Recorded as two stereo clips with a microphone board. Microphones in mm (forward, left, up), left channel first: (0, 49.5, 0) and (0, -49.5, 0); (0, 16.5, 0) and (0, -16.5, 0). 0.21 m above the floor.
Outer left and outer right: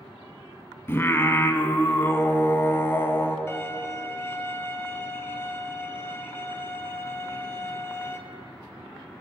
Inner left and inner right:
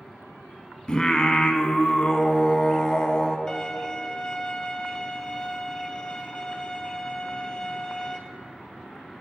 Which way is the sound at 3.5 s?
25° left (ahead or behind).